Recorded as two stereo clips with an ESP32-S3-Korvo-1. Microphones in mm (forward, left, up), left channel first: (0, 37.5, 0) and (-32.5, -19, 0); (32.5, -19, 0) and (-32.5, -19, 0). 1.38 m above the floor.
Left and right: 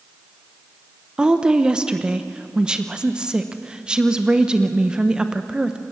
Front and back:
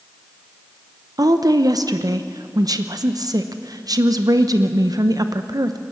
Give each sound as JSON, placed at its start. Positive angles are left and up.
{"t": 1.2, "sound": "a woman speaking", "azimuth_deg": 160, "distance_m": 0.8}